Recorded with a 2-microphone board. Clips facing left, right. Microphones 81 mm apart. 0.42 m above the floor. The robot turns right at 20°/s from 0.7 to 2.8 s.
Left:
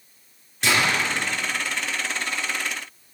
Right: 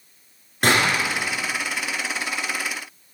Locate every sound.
0.6 s a gunshot: 50° right (ahead or behind), 6.5 m; by 0.9 s 55° right (ahead or behind), 6.5 m